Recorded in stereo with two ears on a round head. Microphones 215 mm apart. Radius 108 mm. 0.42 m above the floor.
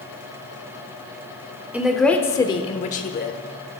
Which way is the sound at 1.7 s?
5° right (ahead or behind).